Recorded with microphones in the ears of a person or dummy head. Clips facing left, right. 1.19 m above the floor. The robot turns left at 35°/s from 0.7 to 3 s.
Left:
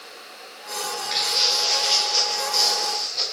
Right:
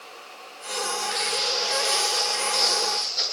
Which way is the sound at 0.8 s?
60° left (ahead or behind).